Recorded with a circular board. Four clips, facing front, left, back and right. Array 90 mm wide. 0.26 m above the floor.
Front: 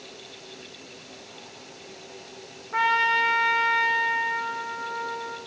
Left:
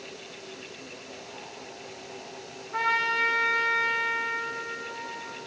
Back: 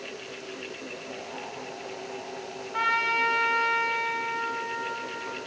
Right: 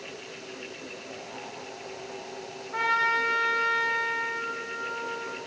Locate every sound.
2.7 s a trumpet: 15° right, 8.5 m